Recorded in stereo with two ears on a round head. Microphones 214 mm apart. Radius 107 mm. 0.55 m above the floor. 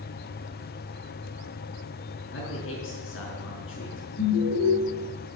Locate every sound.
2.2 s a man speaking: 55° left (ahead or behind), 6 m
4.2 s an alarm: 55° left (ahead or behind), 5.5 m